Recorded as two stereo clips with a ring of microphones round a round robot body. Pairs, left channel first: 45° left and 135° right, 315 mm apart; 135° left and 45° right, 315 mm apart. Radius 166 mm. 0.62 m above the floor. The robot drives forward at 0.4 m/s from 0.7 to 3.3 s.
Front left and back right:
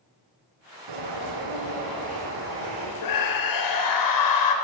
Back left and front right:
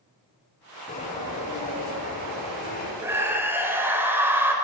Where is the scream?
35° left, 3.5 m; by 4.5 s 40° left, 3.5 m.